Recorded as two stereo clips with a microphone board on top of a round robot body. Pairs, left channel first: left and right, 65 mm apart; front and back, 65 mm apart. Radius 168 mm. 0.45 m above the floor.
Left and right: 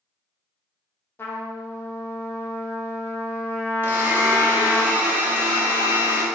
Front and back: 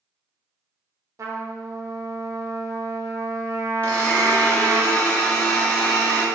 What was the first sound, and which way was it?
A trumpet, 145° left.